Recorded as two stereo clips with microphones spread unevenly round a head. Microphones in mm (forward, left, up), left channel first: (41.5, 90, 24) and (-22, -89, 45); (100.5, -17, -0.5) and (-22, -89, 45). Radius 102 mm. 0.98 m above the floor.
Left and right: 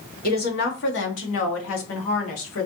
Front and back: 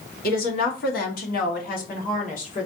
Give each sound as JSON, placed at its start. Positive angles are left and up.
{"t": 0.2, "sound": "a woman speaking", "azimuth_deg": 25, "distance_m": 1.4}